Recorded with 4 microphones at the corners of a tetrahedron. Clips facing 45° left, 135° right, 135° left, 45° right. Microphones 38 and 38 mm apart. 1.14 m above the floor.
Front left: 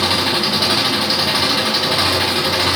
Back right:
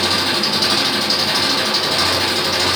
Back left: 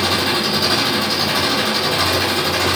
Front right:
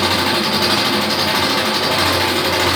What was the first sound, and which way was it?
An engine running, 30° right.